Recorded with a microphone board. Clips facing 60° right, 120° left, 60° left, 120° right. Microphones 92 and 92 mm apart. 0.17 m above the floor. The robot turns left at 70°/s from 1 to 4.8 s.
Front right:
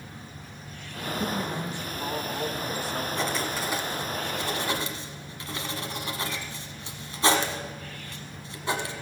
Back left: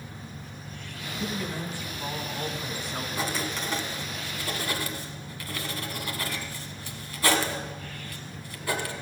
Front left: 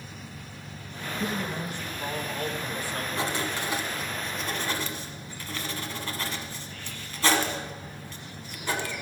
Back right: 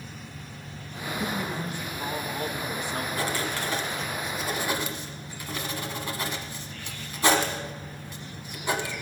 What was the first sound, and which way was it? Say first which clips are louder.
A man speaking: front right 2 dB, even; 25° right.